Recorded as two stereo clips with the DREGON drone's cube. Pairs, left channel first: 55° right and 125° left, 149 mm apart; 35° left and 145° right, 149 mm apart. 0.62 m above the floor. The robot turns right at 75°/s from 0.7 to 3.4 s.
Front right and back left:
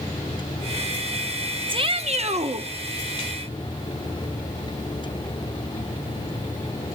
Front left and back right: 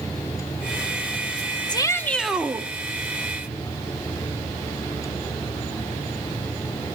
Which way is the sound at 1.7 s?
80° left.